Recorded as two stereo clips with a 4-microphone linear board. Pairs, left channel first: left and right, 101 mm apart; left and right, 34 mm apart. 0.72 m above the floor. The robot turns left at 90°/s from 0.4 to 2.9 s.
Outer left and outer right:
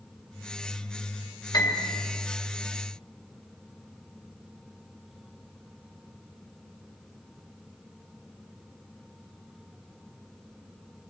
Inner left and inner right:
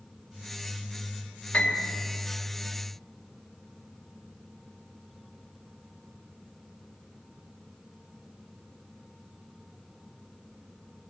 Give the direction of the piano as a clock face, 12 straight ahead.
8 o'clock.